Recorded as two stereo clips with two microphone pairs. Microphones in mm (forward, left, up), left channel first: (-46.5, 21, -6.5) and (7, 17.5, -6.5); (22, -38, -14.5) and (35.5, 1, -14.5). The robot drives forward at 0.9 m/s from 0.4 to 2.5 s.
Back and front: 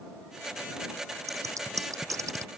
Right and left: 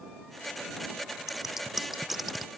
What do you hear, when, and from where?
1.3 s scissors: 15° right